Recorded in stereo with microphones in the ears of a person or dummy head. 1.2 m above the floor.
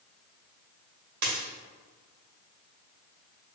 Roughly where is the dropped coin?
Right.